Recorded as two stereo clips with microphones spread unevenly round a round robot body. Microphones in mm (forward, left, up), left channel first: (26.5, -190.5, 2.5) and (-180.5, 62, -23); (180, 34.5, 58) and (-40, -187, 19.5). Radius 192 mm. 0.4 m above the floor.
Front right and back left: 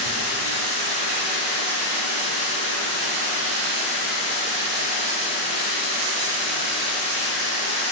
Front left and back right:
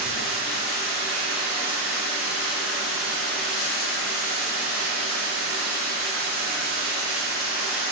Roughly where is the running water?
Behind.